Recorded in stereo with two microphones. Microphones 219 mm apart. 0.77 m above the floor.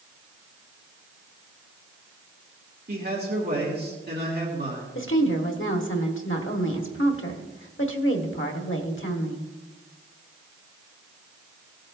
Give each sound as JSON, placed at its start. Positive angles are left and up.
{"t": 2.9, "sound": "a man speaking", "side_deg": -45, "distance_m": 2.0}
{"t": 5.0, "sound": "a woman speaking", "side_deg": 65, "distance_m": 1.5}